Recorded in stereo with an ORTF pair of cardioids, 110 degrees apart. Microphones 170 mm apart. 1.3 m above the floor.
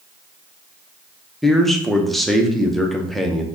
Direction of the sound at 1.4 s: Straight ahead.